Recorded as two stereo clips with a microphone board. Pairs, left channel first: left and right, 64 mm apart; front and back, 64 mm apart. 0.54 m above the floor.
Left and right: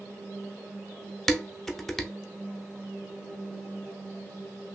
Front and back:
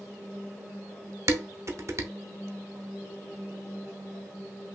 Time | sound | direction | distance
1.3 | dishes clattering | 175° left | 0.6 m